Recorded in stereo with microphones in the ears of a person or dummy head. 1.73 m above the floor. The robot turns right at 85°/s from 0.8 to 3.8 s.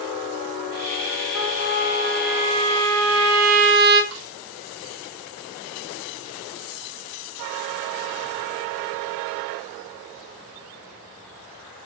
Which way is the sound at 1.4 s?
110° left.